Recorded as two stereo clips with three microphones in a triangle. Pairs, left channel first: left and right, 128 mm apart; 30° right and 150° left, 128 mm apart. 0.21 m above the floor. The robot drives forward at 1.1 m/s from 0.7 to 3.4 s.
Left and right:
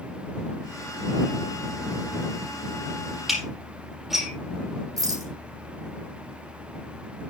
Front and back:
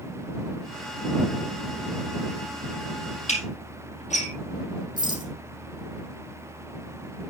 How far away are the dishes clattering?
About 5.5 m.